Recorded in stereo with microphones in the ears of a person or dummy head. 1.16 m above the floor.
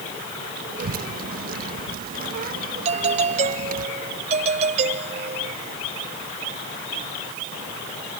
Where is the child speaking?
40° right (ahead or behind).